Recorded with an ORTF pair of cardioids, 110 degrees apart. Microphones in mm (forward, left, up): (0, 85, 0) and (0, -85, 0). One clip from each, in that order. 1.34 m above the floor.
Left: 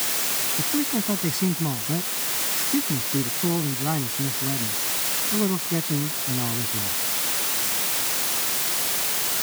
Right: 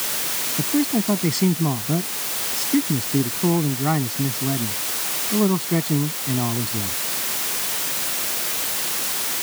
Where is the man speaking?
30° right.